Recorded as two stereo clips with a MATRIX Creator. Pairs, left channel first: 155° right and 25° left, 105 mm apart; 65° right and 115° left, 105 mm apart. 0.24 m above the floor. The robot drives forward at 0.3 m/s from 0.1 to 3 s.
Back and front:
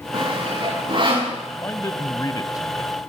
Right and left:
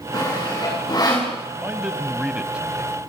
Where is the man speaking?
175° right, 1.3 m.